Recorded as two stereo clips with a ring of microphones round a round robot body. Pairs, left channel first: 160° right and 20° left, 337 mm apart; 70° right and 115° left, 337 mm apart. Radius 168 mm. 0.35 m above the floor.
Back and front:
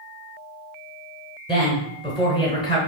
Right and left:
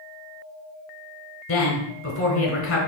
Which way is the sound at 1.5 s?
90° right.